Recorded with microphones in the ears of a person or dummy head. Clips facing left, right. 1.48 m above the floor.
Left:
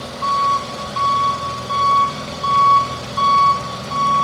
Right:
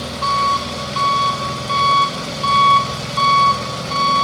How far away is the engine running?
About 4 m.